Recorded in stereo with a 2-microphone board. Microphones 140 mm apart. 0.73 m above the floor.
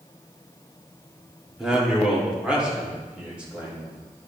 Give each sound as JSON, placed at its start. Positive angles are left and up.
{"t": 1.6, "sound": "a man speaking", "side_deg": -5, "distance_m": 1.7}